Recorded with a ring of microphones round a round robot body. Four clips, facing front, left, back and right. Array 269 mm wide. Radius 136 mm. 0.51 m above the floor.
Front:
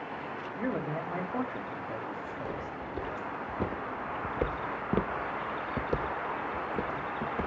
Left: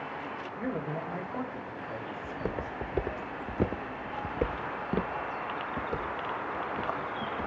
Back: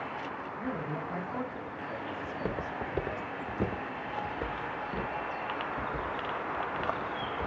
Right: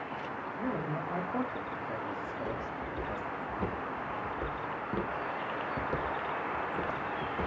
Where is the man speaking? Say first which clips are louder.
Left 1 dB, front 4 dB; 10° left, 1.3 m; by 3.2 s 120° right, 1.4 m.